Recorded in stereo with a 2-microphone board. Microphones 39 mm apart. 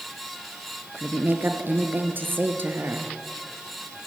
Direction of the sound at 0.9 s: 65° right (ahead or behind).